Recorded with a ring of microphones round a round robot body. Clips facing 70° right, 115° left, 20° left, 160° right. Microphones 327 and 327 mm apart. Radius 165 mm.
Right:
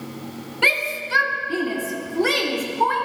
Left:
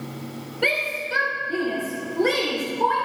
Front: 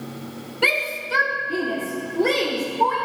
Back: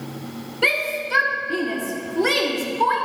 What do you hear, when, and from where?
0.6 s a shout: 60° right, 1.3 m; by 3.0 s 125° right, 1.9 m